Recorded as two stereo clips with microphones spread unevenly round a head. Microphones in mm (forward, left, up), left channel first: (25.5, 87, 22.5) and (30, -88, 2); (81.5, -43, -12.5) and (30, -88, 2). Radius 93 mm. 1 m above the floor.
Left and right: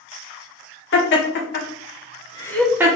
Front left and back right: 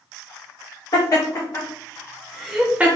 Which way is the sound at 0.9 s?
85° left.